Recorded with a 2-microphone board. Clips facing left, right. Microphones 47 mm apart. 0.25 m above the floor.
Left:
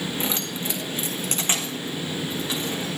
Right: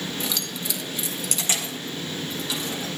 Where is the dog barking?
No dog barking in this recording.